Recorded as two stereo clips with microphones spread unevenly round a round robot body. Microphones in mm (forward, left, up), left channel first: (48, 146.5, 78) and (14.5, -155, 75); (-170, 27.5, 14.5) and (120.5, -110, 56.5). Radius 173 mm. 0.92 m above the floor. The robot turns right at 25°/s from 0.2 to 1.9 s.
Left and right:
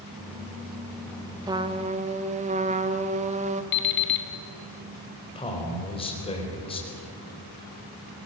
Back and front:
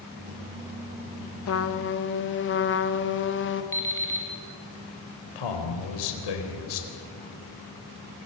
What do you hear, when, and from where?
1.5 s a trumpet: 175° right, 1.1 m; by 3.6 s 160° right, 1.1 m
3.7 s an alarm clock: 70° left, 2 m
5.3 s a man speaking: 160° left, 4 m